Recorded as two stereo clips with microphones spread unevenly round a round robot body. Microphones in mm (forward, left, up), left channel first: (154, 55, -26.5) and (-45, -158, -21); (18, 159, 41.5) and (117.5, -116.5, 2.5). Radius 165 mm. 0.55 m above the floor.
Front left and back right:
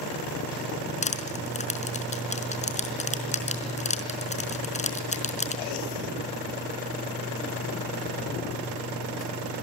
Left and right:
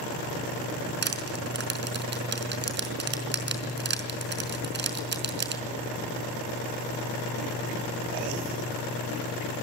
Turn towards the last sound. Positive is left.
turn(degrees=-20)